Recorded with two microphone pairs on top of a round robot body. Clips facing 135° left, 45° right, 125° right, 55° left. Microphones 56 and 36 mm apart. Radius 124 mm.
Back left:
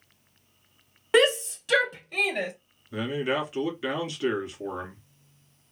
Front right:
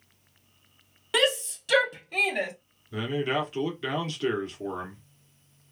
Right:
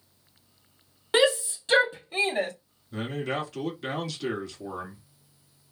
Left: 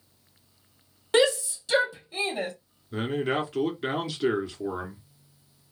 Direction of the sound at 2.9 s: 45° left.